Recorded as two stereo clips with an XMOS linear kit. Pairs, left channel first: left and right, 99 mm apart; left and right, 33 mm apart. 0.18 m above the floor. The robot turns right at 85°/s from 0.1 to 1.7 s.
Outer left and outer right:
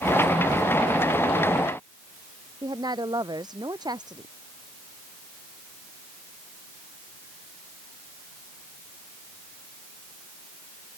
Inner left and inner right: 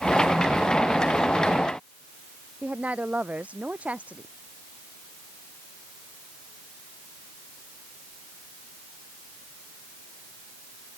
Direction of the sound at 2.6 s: 45° right (ahead or behind).